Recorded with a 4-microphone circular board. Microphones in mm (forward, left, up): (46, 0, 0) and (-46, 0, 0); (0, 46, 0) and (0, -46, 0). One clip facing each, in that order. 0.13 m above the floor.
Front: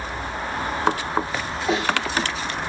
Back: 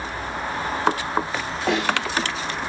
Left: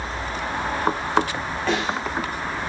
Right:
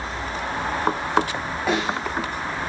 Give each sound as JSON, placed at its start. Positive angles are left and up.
{"t": 1.7, "sound": "a snare drum", "azimuth_deg": -170, "distance_m": 9.0}